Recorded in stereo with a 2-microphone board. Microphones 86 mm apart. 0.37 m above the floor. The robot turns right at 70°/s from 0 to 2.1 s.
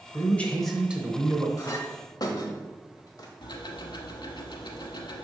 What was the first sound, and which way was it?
A man speaking, 140° left.